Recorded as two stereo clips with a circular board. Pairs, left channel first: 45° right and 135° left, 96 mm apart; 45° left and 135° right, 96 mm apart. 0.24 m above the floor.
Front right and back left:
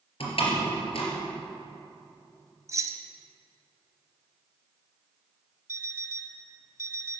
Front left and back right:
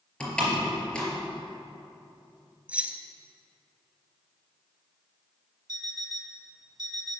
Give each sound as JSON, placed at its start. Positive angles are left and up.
{"t": 0.2, "sound": "a door slam", "azimuth_deg": -35, "distance_m": 3.0}
{"t": 2.7, "sound": "keys jangling", "azimuth_deg": 160, "distance_m": 0.7}
{"t": 5.7, "sound": "an alarm clock", "azimuth_deg": -170, "distance_m": 1.2}